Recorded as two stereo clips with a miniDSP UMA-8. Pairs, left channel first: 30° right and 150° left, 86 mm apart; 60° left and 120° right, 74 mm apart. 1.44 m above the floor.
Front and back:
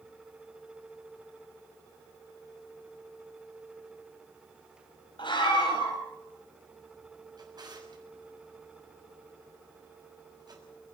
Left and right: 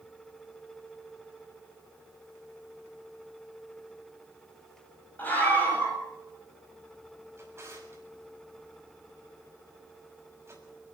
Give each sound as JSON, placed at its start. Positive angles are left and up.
{"t": 5.2, "sound": "a scream", "azimuth_deg": -5, "distance_m": 9.0}
{"t": 7.4, "sound": "a drawer", "azimuth_deg": -175, "distance_m": 6.5}